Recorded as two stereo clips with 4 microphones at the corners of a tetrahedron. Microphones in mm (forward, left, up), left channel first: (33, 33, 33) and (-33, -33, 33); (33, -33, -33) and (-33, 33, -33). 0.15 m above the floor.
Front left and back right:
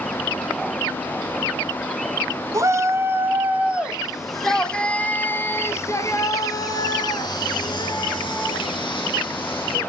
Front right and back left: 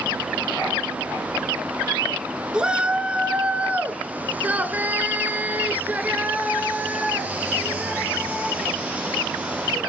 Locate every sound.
2.5 s a shout: 150° right, 1.6 m; by 9.8 s 60° left, 3.5 m